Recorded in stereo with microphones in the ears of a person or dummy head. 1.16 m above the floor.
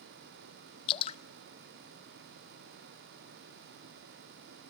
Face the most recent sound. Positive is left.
turn(degrees=35)  # may be behind; listen again after turning